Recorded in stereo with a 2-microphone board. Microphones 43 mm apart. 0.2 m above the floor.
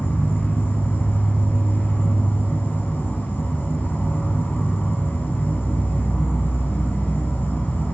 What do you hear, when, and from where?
0.0 s an insect: 50° left (ahead or behind), 1.7 m